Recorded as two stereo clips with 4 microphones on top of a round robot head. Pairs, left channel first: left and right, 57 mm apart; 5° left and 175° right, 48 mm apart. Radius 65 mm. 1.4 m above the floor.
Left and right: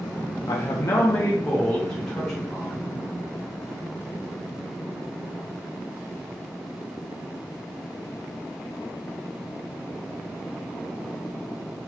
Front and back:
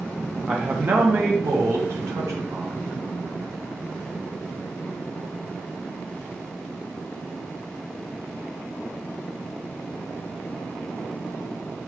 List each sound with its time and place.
0.5 s a man speaking: 115° left, 0.6 m; by 3.0 s 175° right, 1.7 m